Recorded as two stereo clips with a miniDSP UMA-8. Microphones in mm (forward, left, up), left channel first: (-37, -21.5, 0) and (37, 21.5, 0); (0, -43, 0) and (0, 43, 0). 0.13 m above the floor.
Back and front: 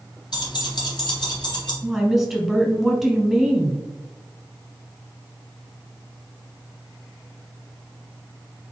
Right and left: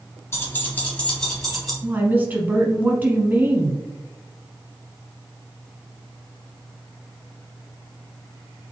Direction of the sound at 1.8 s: 110° left.